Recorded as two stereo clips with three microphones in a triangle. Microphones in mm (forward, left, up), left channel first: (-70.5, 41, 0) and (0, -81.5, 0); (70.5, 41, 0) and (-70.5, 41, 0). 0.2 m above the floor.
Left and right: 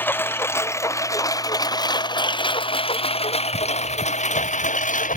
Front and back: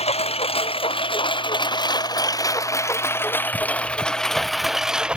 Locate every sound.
0.0 s a lawn mower: 45° left; by 5.2 s 95° left